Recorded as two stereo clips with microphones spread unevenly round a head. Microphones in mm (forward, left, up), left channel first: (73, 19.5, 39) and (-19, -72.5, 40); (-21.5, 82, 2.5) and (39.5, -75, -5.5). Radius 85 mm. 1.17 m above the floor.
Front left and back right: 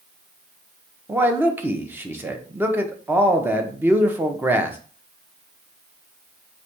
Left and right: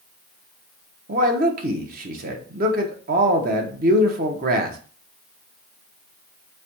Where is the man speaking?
65° right, 0.9 m.